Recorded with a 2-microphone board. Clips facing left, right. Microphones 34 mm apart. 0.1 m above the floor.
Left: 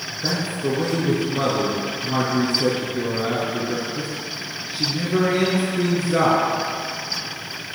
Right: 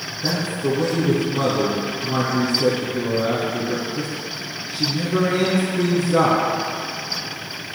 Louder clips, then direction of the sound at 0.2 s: Right 1 dB; 15° left (ahead or behind).